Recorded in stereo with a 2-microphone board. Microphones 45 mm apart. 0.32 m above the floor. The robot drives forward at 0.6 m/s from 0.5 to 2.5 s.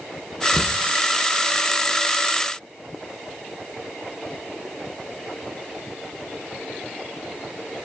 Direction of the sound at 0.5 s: 35° left (ahead or behind).